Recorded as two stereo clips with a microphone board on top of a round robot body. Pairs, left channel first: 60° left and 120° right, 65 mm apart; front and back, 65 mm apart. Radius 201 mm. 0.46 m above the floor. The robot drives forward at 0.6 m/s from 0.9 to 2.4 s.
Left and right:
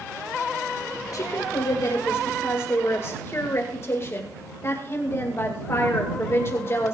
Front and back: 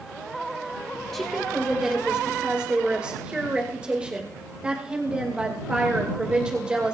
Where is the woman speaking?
90° left, 2.5 m; by 7.0 s 110° left, 2.5 m.